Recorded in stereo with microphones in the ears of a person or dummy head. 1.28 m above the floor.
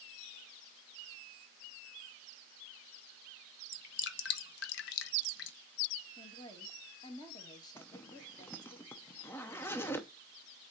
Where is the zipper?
10° left (ahead or behind), 0.6 m.